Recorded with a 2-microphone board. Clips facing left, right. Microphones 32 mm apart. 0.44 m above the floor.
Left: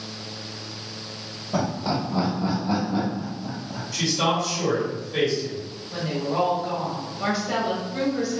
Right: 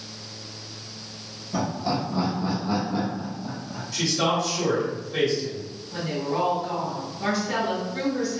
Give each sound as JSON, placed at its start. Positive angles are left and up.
{"t": 1.5, "sound": "laughter", "side_deg": 40, "distance_m": 1.2}
{"t": 3.9, "sound": "a man speaking", "side_deg": 0, "distance_m": 1.5}
{"t": 5.9, "sound": "a woman speaking", "side_deg": 25, "distance_m": 1.4}